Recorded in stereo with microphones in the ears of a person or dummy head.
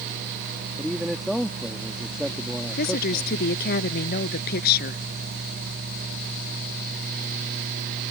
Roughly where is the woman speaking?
Left.